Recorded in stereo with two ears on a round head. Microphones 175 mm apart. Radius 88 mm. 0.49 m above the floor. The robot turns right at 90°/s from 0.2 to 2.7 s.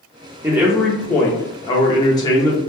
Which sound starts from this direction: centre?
A man speaking, at 0.4 s.